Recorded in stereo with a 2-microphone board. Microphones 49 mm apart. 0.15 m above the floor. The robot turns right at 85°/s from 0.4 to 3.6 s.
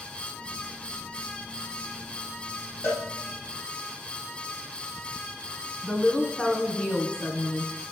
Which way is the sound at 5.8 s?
20° left (ahead or behind).